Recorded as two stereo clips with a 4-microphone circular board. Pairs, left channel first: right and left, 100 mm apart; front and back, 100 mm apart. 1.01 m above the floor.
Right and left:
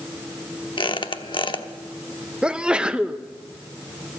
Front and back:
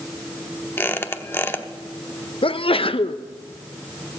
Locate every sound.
0.8 s a squeak: 65° right, 0.9 m
2.4 s a sneeze: 10° left, 0.6 m